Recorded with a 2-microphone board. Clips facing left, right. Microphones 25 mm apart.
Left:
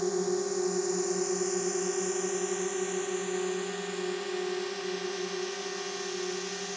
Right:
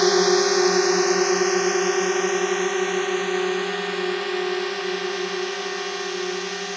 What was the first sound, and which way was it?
A drone, 70° right (ahead or behind).